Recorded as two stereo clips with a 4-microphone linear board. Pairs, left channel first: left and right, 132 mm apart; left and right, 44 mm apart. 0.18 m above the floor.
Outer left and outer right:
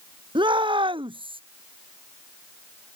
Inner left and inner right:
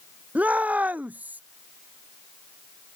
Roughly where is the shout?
Right.